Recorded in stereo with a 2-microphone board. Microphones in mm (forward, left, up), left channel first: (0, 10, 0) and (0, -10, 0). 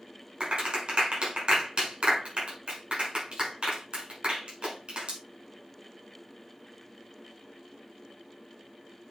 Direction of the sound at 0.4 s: 70° right (ahead or behind).